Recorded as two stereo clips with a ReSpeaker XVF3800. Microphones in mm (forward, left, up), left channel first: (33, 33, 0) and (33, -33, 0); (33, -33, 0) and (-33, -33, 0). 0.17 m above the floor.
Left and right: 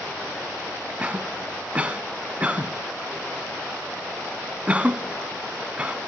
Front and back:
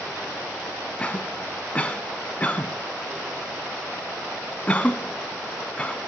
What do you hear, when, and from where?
1.0 s a cough: 45° right, 1.2 m